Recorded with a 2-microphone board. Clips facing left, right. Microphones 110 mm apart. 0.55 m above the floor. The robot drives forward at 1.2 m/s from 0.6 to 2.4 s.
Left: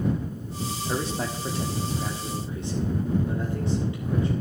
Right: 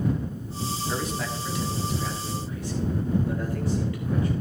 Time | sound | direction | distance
0.9 | a man speaking | 30° left (ahead or behind) | 1.5 m